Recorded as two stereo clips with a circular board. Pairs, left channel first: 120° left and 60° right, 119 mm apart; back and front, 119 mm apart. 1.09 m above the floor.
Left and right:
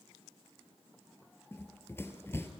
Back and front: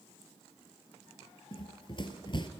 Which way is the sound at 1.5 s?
Straight behind.